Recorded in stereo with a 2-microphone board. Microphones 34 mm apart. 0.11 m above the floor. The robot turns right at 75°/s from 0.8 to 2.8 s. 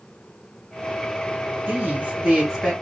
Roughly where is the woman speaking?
Right.